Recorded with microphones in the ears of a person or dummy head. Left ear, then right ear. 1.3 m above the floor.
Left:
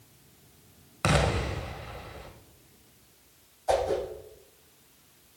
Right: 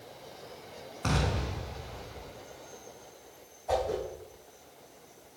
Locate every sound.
1.0 s an explosion: 45° left (ahead or behind), 1.4 m
3.7 s a whoosh: 75° left (ahead or behind), 3.5 m